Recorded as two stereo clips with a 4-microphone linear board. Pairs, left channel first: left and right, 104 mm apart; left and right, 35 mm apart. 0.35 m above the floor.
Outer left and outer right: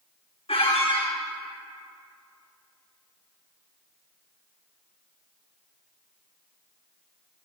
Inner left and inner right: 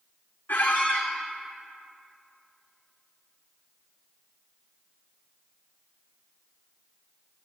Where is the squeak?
70° left (ahead or behind), 1.6 m.